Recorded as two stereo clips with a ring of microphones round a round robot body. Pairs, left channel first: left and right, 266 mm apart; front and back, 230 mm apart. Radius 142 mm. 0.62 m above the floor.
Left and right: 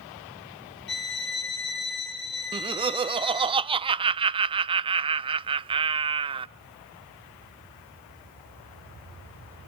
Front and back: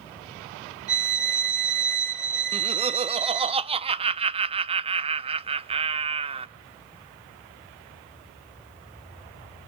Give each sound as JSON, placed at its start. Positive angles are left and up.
{"t": 0.9, "sound": "a violin", "azimuth_deg": 140, "distance_m": 3.5}
{"t": 2.5, "sound": "laughter", "azimuth_deg": -140, "distance_m": 0.7}